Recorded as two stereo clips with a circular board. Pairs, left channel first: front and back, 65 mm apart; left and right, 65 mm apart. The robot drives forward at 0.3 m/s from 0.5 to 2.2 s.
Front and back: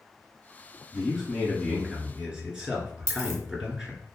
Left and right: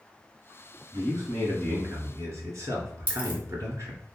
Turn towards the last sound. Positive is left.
turn(degrees=145)